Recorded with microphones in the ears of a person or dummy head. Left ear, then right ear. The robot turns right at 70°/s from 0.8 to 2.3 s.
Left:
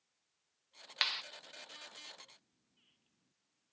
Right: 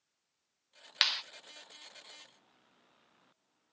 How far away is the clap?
About 0.7 m.